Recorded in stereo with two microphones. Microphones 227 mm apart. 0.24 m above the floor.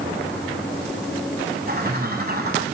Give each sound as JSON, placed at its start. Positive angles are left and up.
{"t": 1.7, "sound": "a bird", "side_deg": -45, "distance_m": 1.4}